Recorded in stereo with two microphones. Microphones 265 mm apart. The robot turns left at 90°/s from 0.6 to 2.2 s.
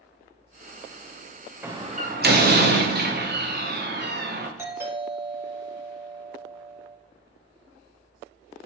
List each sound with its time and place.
1.6 s a door slam: 10° right, 0.6 m; by 4.5 s 65° right, 0.6 m
4.6 s a doorbell: 10° right (ahead or behind), 1.3 m